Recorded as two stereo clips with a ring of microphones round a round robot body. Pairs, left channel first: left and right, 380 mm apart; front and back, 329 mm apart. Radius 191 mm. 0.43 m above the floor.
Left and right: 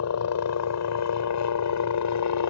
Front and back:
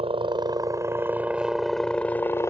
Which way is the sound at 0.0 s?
115° left.